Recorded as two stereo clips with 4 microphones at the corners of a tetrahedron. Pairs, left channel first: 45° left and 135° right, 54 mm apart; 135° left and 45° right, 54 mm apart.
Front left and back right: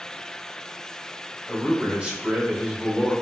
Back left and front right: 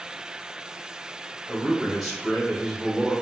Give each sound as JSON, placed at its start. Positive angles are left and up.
{"t": 1.5, "sound": "a man speaking", "azimuth_deg": -130, "distance_m": 1.3}